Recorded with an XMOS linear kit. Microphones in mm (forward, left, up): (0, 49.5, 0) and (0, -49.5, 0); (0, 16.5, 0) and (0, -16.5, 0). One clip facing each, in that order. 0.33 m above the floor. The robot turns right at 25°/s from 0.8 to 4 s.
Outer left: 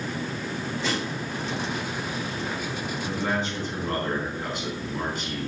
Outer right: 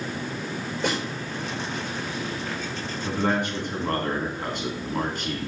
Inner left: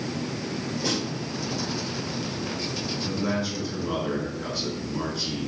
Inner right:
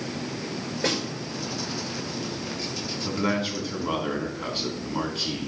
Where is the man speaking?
65° right (ahead or behind), 3 m; by 5.5 s 50° right (ahead or behind), 3 m.